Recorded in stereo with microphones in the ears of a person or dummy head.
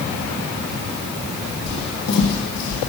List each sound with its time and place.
1.7 s footsteps: 50° left (ahead or behind), 2 m; by 2.8 s 60° left (ahead or behind), 2 m